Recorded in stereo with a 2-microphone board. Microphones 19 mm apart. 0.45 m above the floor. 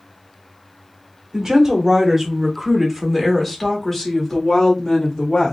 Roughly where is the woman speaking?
Right.